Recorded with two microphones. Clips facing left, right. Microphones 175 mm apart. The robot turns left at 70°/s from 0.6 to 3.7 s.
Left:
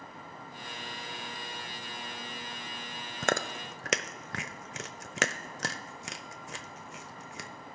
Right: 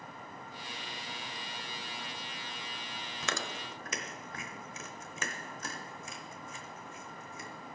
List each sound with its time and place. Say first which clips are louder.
3.2 s chewing: left 8 dB; 50° left (ahead or behind), 0.7 m; by 7.5 s 75° left (ahead or behind), 0.7 m